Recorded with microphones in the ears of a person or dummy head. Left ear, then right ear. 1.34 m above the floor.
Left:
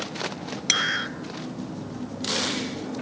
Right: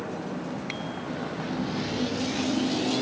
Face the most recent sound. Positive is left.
turn(degrees=80)